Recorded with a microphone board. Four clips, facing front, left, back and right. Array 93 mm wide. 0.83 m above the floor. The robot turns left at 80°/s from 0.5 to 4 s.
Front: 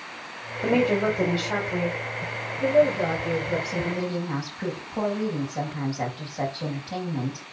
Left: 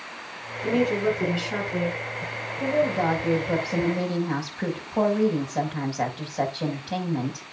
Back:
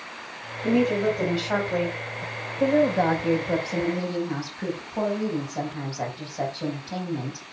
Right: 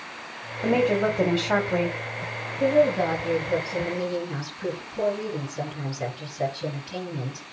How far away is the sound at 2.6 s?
About 5 m.